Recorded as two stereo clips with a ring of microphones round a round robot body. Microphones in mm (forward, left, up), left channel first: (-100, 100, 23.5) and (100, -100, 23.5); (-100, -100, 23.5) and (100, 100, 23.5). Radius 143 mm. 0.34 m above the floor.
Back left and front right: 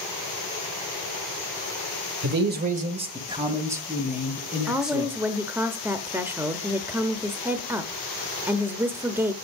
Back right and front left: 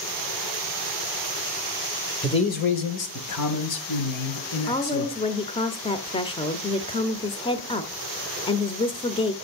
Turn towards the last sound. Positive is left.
turn(degrees=-110)